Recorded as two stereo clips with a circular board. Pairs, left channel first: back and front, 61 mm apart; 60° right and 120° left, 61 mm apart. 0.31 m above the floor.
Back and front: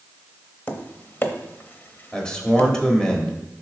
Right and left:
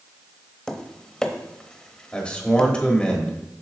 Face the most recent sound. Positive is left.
turn(degrees=-115)